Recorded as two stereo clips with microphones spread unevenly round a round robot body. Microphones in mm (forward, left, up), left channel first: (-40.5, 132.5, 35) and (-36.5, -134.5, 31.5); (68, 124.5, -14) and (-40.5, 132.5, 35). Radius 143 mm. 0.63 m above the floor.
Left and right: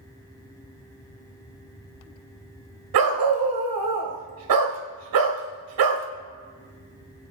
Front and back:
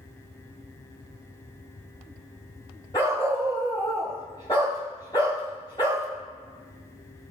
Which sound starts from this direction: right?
A dog barking, at 2.9 s.